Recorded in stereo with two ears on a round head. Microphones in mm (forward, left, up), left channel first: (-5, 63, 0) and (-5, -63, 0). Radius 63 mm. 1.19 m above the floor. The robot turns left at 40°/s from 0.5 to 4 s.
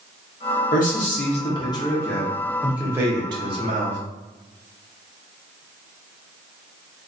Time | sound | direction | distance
0.7 | a man speaking | 70° left | 0.9 m